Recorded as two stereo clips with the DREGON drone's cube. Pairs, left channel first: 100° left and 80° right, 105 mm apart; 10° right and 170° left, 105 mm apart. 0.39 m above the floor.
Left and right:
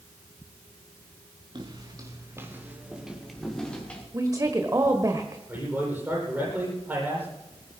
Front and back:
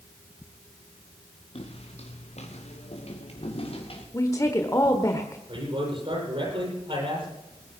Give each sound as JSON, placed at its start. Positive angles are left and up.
{"t": 1.6, "sound": "footsteps", "azimuth_deg": -35, "distance_m": 3.0}
{"t": 4.1, "sound": "a woman speaking", "azimuth_deg": -50, "distance_m": 1.3}
{"t": 5.5, "sound": "a man speaking", "azimuth_deg": -155, "distance_m": 10.0}